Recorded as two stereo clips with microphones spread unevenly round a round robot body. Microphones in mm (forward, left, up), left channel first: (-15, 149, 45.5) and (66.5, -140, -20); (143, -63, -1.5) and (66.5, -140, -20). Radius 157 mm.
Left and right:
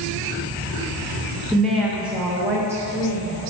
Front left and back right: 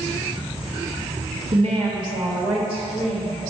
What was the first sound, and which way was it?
A woman speaking, 160° right.